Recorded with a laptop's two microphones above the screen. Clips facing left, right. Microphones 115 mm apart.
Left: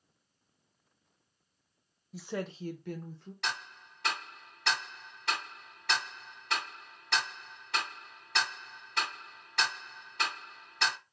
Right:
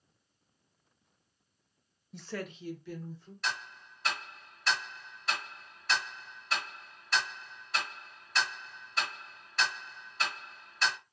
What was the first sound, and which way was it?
A woman speaking, centre (ahead or behind).